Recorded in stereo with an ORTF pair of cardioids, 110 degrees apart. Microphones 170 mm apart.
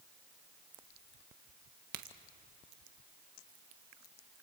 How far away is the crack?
About 1.5 m.